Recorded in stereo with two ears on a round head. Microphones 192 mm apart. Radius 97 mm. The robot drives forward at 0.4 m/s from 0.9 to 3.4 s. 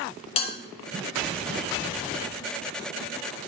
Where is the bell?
25° left (ahead or behind), 0.6 m.